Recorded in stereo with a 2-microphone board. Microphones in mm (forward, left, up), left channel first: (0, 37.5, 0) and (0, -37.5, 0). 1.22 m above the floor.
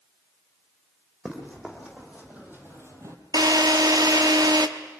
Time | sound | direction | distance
1.2 | running footsteps | 10° right (ahead or behind) | 4.5 m
3.3 | a drill | 60° right (ahead or behind) | 1.3 m